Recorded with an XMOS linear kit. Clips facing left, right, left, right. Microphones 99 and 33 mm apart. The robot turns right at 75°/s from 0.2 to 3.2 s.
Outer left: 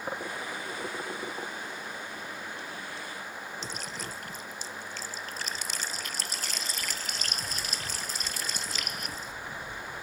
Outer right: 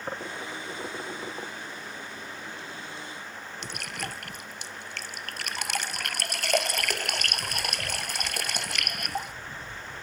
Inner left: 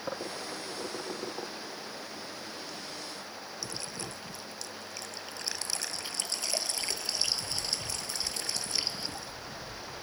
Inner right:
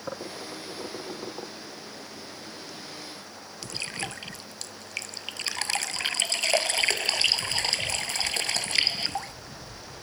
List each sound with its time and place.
3.6 s dripping: 75° right (ahead or behind)